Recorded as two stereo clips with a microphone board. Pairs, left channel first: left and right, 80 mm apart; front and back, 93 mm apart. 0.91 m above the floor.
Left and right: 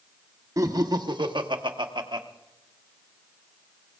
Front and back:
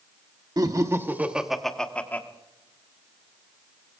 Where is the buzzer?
No buzzer in this recording.